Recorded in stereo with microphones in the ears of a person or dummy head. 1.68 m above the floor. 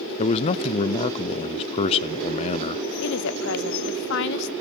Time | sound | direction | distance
0.2 | a man speaking | 25° left (ahead or behind) | 0.7 m
3.0 | a woman speaking | 80° left | 1.1 m